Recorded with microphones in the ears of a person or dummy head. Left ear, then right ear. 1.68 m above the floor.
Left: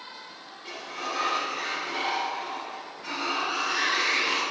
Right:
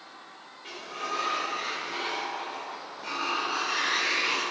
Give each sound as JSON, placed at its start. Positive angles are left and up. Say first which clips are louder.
{"t": 0.6, "sound": "a sliding door", "louder": "left 1 dB", "side_deg": -10, "distance_m": 3.0}